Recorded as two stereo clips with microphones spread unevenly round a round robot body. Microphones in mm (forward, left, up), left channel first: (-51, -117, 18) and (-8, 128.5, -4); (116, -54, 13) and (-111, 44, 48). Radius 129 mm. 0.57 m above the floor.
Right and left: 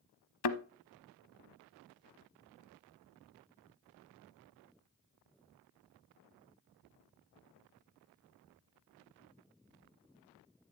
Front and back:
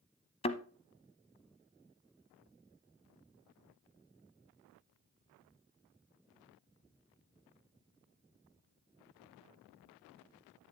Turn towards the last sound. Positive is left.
turn(degrees=-95)